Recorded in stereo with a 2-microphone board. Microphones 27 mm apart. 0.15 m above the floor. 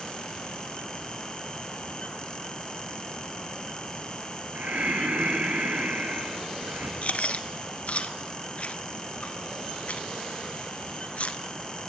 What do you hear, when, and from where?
4.5 s breathing: 65° right (ahead or behind), 2.5 m
7.0 s chewing: 55° left (ahead or behind), 1.2 m